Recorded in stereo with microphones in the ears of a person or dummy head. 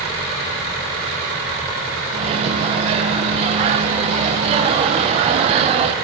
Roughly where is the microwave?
Right.